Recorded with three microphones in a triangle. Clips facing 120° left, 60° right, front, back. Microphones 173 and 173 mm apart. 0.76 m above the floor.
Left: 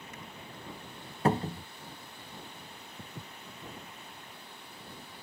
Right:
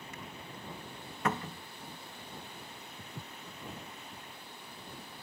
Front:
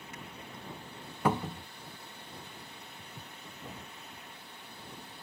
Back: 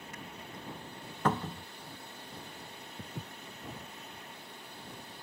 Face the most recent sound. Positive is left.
turn(degrees=-70)